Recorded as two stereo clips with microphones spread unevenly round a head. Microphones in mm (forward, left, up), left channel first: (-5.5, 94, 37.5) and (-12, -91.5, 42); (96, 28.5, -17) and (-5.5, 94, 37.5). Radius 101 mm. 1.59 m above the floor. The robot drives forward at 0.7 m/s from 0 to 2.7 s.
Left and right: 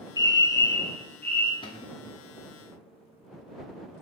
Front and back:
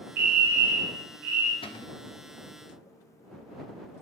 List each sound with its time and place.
0.2 s a fire alarm: 155° left, 0.8 m; by 1.5 s 170° left, 1.7 m
1.6 s a cupboard door: 25° left, 1.3 m; by 2.0 s 30° left, 1.0 m